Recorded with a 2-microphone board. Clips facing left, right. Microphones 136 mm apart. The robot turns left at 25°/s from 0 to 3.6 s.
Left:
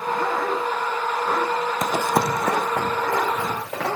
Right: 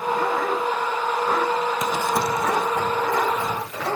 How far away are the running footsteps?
About 0.5 m.